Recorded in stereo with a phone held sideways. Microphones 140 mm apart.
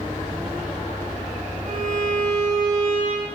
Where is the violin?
70° right (ahead or behind), 0.7 m.